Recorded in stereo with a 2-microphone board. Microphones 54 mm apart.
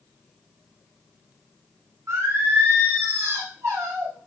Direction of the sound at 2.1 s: 65° right (ahead or behind).